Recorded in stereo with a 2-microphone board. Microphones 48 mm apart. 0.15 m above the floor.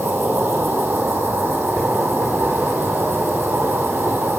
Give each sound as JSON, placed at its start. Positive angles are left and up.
{"t": 0.0, "sound": "an insect", "side_deg": -45, "distance_m": 1.5}